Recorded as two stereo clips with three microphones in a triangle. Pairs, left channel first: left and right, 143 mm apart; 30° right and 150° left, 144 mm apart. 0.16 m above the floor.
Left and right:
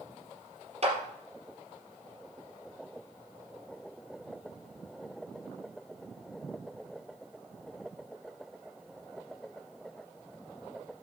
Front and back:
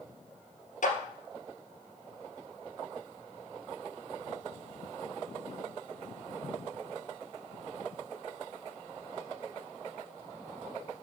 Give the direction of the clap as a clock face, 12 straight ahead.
2 o'clock.